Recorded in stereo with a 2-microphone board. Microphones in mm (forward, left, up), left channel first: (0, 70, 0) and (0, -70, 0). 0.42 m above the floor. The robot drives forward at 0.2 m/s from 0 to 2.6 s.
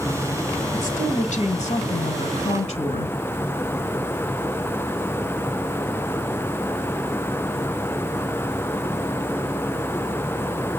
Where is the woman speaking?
60° left (ahead or behind), 1.7 m; by 3.1 s 50° left (ahead or behind), 1.9 m.